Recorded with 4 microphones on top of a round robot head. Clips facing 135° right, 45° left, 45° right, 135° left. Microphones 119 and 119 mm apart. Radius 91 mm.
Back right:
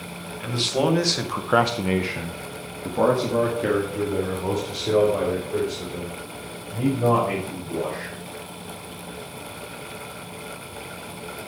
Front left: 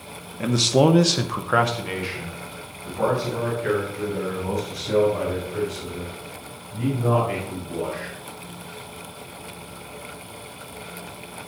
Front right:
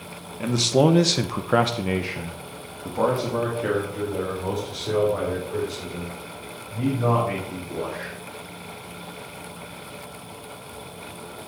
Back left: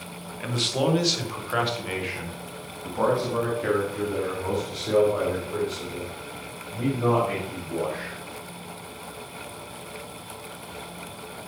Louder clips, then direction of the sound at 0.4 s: Front left 5 dB, front right 6 dB; 10° left.